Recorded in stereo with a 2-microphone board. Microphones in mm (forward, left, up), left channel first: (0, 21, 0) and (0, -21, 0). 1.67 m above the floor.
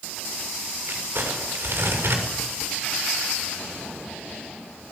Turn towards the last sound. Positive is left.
turn(degrees=-65)  # may be behind; listen again after turning